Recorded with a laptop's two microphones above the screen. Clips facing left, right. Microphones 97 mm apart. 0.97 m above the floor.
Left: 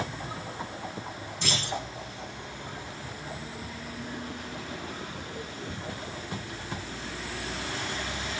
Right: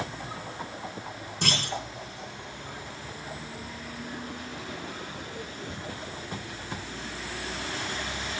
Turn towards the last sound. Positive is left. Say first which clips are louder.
# right 1 dB
turn(degrees=-65)  # may be behind; listen again after turning